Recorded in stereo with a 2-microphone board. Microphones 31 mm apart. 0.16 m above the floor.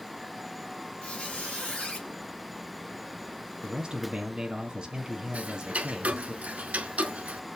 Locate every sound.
1.0 s a squeak: 55° left (ahead or behind), 4.5 m
3.6 s a man speaking: 25° right (ahead or behind), 1.6 m
5.3 s ticking: 50° right (ahead or behind), 0.7 m